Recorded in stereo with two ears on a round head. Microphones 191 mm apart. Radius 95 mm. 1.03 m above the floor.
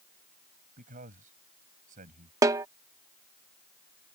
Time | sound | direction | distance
0.8 | a man speaking | 40° right (ahead or behind) | ?
2.4 | a snare drum | 15° right (ahead or behind) | ?